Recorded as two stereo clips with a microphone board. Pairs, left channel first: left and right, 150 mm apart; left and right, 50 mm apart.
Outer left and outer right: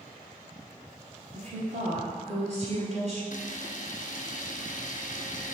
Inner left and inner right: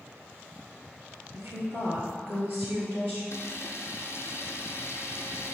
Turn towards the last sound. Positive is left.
turn(degrees=65)  # may be behind; listen again after turning